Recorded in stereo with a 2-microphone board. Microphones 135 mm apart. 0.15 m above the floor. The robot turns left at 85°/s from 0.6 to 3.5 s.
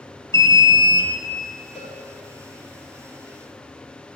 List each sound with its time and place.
0.3 s an alarm: 130° left, 1.8 m; by 1.1 s 90° left, 1.8 m
1.8 s a cowbell: centre (ahead or behind), 4.5 m; by 1.9 s 15° right (ahead or behind), 4.5 m